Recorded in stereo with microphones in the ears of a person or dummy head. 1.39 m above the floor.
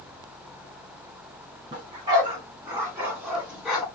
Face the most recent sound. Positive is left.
turn(degrees=5)  # may be behind; listen again after turning